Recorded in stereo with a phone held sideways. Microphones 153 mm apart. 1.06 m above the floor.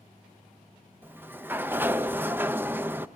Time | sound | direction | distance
1.0 | a sliding door | 15° right (ahead or behind) | 0.6 m